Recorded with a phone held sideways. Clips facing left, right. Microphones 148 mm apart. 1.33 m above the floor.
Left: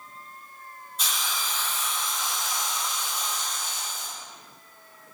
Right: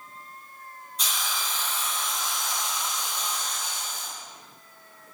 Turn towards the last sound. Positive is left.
turn(degrees=5)  # may be behind; listen again after turning